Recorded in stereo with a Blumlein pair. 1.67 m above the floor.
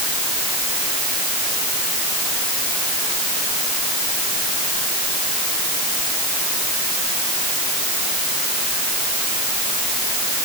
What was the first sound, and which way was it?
Only background noise.